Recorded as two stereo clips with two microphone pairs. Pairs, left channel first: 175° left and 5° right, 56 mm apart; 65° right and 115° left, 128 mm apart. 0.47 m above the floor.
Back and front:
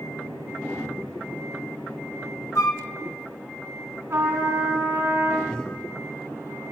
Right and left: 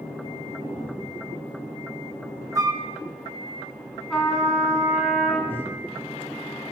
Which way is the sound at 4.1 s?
20° left.